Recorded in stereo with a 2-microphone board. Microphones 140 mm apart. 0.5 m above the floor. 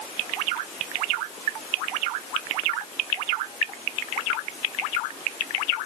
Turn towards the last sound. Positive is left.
No sound to turn to.